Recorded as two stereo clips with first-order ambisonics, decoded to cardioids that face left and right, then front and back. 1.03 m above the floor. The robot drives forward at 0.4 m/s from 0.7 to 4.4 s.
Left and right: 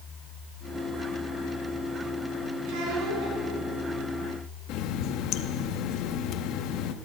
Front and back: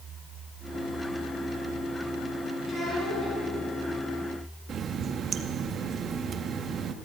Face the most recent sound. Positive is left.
turn(degrees=120)